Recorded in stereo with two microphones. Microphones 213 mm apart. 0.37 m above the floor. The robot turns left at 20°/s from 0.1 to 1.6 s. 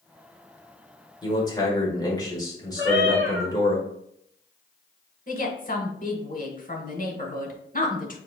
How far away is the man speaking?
About 1.2 m.